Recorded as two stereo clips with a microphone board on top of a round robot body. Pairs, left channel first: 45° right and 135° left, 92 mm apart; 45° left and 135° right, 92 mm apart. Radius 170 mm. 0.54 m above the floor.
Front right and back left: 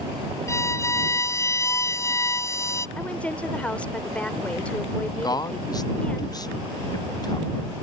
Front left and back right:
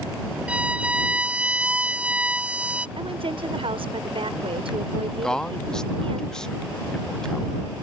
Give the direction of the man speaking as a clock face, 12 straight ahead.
1 o'clock.